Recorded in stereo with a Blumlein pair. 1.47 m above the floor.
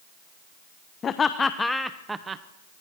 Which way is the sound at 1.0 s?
25° left.